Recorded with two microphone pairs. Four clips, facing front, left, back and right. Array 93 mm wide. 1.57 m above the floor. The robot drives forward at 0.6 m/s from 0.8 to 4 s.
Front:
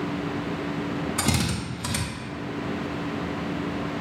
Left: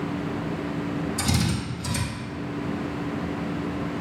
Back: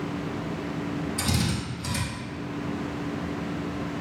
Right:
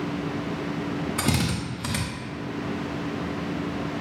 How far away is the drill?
About 1.4 m.